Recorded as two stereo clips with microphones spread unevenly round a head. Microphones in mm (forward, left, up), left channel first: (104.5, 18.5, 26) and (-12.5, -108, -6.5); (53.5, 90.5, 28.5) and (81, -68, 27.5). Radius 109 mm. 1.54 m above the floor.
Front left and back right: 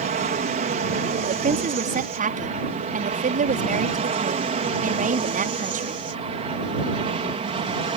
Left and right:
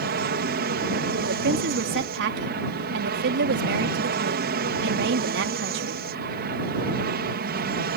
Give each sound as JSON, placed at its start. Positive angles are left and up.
{"t": 0.0, "sound": "an aircraft", "azimuth_deg": -95}
{"t": 1.2, "sound": "a woman speaking", "azimuth_deg": -90}